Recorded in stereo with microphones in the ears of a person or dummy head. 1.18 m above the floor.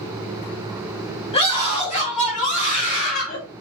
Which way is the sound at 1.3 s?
30° left (ahead or behind).